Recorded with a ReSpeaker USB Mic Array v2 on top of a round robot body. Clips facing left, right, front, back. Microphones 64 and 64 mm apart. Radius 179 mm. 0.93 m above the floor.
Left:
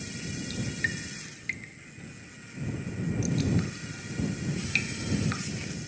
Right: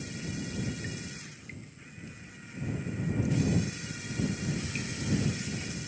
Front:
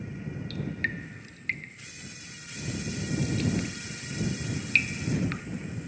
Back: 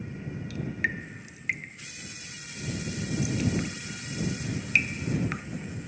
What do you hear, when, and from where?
0.5 s dripping: 105° left